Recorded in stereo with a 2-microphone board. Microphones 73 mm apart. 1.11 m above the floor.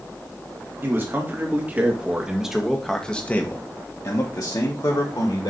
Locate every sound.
0.8 s a man speaking: 30° right (ahead or behind), 2.5 m; by 5.5 s 75° left (ahead or behind), 2 m